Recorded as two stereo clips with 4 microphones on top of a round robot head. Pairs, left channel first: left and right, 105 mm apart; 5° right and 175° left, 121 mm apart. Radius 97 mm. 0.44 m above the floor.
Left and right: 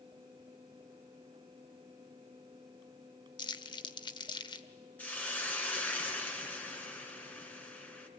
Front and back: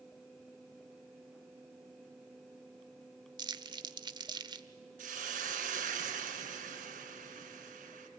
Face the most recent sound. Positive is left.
turn(degrees=165)